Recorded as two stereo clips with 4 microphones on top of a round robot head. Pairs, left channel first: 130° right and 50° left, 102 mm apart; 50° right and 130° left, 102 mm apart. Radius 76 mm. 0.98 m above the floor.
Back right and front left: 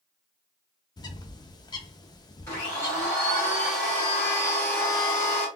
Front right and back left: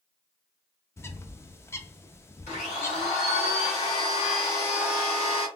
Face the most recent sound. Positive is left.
turn(degrees=-65)